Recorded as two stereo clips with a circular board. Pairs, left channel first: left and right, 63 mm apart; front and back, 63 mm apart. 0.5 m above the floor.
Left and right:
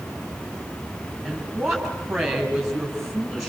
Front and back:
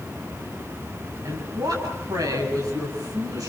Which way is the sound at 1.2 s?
175° right.